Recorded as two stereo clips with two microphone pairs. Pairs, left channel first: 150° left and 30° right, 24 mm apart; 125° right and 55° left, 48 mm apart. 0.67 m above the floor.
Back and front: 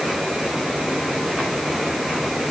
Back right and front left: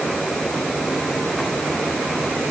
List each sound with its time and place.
Only background noise.